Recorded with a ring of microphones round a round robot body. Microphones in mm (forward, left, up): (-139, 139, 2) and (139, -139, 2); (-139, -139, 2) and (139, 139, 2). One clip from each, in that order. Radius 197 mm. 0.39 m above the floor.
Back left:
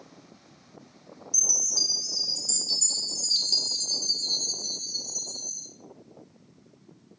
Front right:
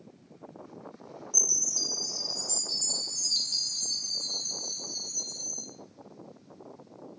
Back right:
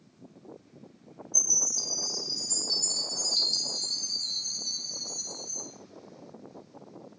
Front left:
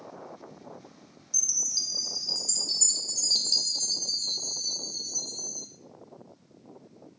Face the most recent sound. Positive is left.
turn(degrees=60)